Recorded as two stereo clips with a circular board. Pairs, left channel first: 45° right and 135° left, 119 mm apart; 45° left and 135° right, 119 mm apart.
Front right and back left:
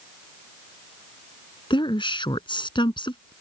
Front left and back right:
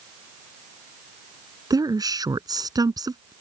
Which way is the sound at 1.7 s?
85° right.